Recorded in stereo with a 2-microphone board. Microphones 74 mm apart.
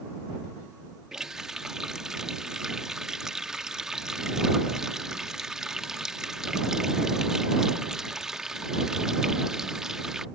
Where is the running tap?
10° right (ahead or behind).